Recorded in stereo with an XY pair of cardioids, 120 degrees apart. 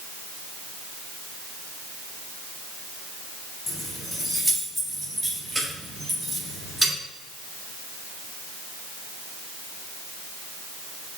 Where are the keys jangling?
25° left, 1.4 m; by 6.9 s 15° right, 4.5 m.